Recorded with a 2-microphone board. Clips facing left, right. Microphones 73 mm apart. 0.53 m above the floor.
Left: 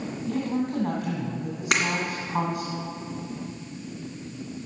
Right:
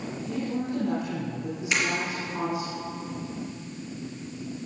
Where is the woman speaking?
60° left (ahead or behind), 3 m.